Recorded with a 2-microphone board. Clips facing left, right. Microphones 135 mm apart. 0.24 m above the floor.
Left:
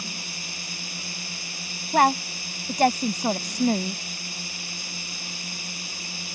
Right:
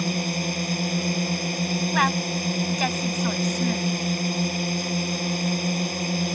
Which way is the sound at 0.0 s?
60° right (ahead or behind).